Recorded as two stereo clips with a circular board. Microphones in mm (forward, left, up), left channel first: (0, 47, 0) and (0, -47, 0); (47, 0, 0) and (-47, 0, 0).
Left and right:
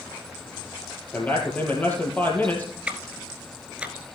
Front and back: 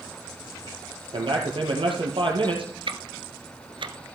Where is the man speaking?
160° left, 4 m.